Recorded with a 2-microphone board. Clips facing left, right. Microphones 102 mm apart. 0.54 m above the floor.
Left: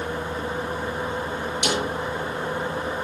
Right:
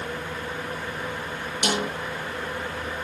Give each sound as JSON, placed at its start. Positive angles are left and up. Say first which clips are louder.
{"t": 1.6, "sound": "a snare drum", "louder": "even", "side_deg": -45, "distance_m": 8.0}